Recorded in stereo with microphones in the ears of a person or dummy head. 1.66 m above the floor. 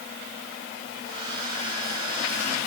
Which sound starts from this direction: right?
A hair dryer, at 1.1 s.